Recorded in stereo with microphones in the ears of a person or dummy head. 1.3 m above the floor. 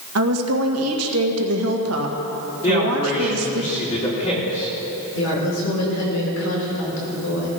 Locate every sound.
0.1 s a woman speaking: 75° right (ahead or behind), 1.8 m
2.6 s a man speaking: 35° left (ahead or behind), 4 m
5.1 s a woman speaking: 85° left, 5.5 m